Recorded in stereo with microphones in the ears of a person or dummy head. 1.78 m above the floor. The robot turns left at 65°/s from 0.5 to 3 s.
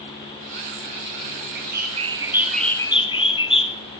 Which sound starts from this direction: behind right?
A bird, at 1.6 s.